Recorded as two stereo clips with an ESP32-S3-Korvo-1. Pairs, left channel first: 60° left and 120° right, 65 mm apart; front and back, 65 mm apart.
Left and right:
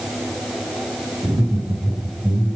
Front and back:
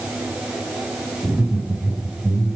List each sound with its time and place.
1.2 s laughter: 115° right, 10 m